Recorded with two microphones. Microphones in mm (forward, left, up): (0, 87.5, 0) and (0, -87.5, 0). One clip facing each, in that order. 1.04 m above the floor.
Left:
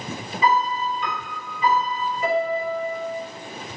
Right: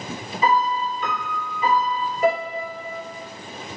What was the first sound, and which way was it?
A piano, 40° right (ahead or behind).